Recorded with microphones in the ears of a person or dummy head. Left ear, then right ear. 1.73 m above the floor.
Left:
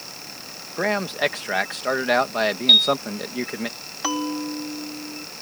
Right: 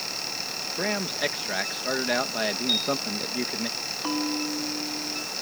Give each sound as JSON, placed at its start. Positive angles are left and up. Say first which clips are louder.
{"t": 0.8, "sound": "a man speaking", "louder": "left 6 dB", "side_deg": 35}
{"t": 2.7, "sound": "a piano", "louder": "left 13 dB", "side_deg": 75}
{"t": 4.0, "sound": "a bell", "louder": "left 4 dB", "side_deg": 60}